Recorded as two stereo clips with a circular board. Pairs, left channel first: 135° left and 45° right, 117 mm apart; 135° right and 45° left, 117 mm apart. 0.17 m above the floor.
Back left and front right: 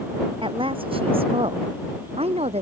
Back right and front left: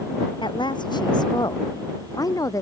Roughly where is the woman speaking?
Right.